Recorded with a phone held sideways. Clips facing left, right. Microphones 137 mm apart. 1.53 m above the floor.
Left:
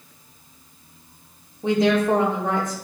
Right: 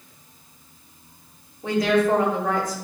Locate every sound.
1.6 s a woman speaking: 25° left (ahead or behind), 2 m